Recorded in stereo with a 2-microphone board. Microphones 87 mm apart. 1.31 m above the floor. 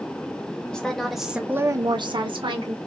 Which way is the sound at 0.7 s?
10° left (ahead or behind).